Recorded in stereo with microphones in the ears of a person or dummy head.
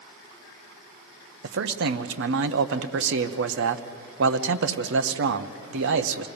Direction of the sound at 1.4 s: 75° right (ahead or behind).